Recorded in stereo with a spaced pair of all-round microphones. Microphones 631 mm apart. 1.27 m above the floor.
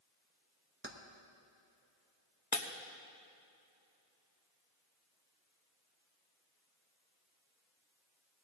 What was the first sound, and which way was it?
Keys jangling, 20° right (ahead or behind).